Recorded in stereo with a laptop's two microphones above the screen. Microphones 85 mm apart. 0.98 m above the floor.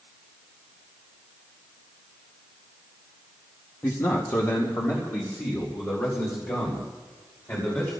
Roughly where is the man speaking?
Left.